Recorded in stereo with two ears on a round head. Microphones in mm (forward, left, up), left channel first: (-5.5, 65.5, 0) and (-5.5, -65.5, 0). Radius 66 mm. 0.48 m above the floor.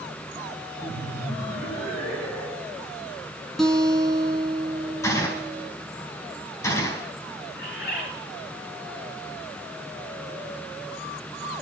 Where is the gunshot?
20° left (ahead or behind), 4.5 m.